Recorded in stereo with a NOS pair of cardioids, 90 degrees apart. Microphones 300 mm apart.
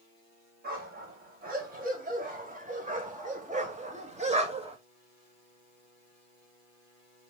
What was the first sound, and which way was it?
A dog barking, 30° right.